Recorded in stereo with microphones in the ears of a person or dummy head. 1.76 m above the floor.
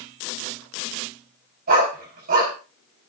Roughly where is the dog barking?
Right.